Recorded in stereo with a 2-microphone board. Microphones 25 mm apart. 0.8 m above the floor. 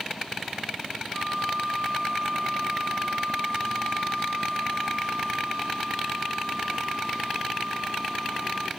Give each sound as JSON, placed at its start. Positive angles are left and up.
{"t": 1.1, "sound": "a flute", "side_deg": -40, "distance_m": 0.8}